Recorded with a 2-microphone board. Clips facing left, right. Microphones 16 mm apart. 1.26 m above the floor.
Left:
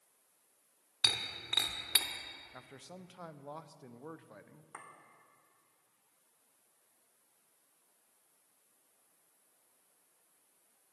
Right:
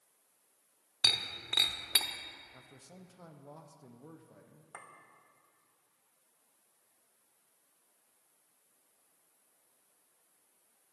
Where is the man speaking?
45° left (ahead or behind), 0.6 m.